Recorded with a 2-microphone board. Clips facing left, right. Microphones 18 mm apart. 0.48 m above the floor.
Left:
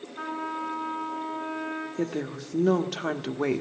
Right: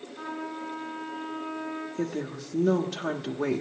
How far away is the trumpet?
About 8 m.